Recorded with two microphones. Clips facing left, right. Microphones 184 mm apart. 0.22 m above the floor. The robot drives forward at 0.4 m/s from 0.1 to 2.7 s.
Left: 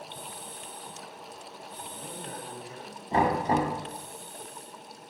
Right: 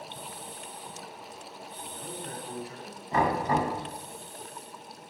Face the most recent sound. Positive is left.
turn(degrees=30)  # may be behind; listen again after turning